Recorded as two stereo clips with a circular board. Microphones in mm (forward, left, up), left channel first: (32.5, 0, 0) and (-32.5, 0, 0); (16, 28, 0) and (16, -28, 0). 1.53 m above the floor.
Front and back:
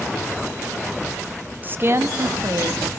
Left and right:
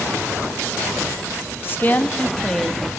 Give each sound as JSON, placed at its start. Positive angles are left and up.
{"t": 1.6, "sound": "a woman speaking", "azimuth_deg": 120, "distance_m": 0.6}